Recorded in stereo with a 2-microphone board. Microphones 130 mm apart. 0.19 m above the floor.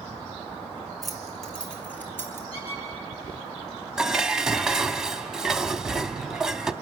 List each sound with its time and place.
1.0 s keys jangling: centre (ahead or behind), 2.5 m; by 2.4 s 20° left (ahead or behind), 2.5 m
2.5 s a squeak: 50° left (ahead or behind), 6.5 m
4.0 s dishes clattering: 5° right (ahead or behind), 0.7 m